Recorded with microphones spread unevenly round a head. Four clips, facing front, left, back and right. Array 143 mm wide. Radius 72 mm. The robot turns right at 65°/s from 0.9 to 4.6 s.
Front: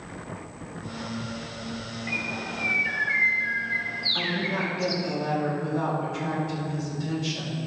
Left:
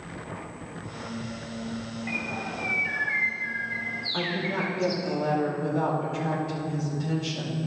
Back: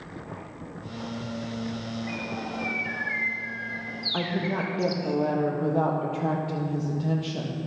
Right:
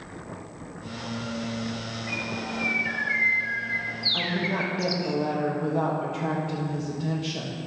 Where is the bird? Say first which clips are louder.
Right 2 dB, even; 90° left, 1.1 m; by 5.1 s 105° right, 1.1 m.